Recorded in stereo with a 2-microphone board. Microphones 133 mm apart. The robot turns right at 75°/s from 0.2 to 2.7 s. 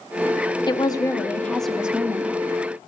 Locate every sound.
0.7 s a woman speaking: 105° left, 1.0 m; by 2.3 s 130° right, 1.0 m